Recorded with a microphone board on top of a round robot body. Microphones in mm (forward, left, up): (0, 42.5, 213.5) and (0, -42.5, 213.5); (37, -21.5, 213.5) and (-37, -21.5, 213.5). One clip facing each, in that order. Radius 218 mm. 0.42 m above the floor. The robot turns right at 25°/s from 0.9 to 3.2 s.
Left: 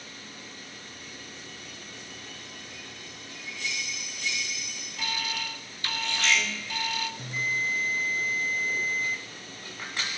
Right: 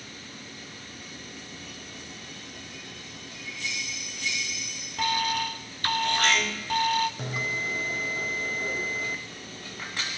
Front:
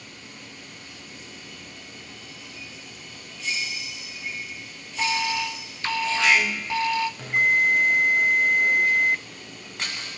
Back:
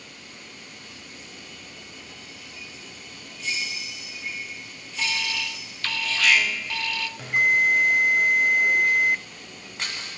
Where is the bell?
95° right, 0.9 m.